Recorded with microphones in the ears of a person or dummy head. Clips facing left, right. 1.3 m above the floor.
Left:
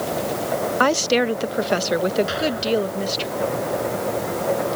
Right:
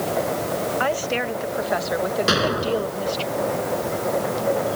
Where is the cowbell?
I don't hear a cowbell.